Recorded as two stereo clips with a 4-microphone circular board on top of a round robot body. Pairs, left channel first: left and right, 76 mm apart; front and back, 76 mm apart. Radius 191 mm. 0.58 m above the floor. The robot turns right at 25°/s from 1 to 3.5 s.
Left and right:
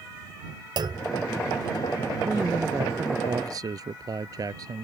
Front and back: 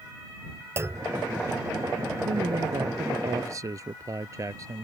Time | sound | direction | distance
0.8 | a clunk | 120° right | ?
2.2 | a man speaking | 160° right | ?